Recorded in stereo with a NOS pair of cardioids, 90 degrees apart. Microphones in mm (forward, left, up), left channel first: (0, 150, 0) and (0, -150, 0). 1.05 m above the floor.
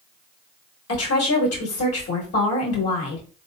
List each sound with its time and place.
0.9 s a woman speaking: 55° left, 1.3 m